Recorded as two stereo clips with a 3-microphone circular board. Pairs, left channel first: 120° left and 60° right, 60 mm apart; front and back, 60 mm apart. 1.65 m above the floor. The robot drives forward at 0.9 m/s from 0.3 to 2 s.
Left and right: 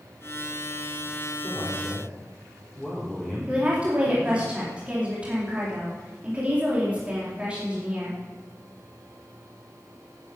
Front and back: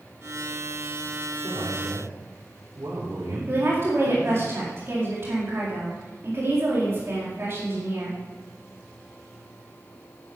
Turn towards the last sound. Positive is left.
turn(degrees=-135)